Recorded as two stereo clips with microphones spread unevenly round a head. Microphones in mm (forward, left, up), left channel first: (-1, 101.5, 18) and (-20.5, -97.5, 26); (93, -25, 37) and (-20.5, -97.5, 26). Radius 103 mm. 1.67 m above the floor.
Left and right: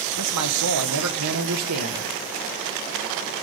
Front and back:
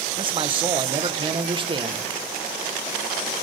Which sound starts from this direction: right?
A man speaking, at 0.2 s.